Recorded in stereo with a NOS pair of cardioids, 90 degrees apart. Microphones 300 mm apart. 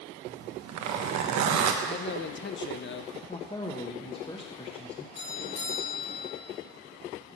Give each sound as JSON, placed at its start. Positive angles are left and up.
{"t": 0.2, "sound": "a zipper", "azimuth_deg": -70, "distance_m": 1.2}
{"t": 1.8, "sound": "a man speaking", "azimuth_deg": 40, "distance_m": 0.6}
{"t": 3.3, "sound": "a man speaking", "azimuth_deg": 20, "distance_m": 1.1}
{"t": 5.2, "sound": "a doorbell", "azimuth_deg": 55, "distance_m": 3.0}